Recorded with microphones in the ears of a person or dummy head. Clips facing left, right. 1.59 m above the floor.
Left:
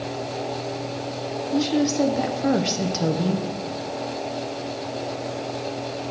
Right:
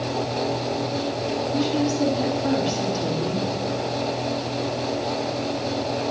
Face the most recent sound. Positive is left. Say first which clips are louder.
# left 3 dB
turn(degrees=65)  # may be behind; listen again after turning